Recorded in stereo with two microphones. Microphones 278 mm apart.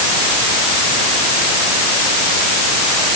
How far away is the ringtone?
No ringtone in this recording.